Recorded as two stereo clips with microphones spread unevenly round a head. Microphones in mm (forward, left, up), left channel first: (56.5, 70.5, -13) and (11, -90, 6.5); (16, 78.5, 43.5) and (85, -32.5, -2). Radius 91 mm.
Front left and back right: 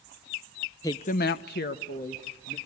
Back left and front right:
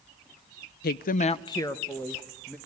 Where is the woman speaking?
140° left, 0.6 m; by 2.6 s 35° left, 2 m.